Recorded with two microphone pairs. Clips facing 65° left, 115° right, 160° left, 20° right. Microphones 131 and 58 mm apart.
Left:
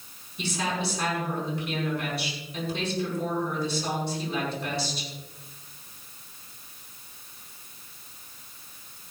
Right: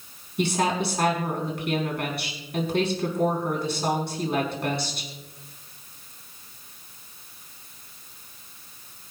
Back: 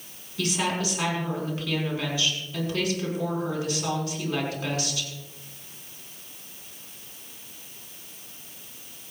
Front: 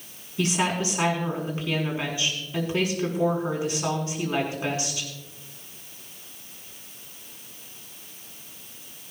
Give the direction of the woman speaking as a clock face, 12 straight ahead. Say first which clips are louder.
Right 6 dB, front 2 dB; 3 o'clock.